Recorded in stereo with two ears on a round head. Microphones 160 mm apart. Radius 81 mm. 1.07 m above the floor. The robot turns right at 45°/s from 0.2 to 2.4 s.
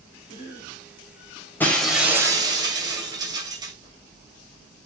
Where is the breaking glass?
170° left, 2 m; by 3.7 s 155° right, 2 m.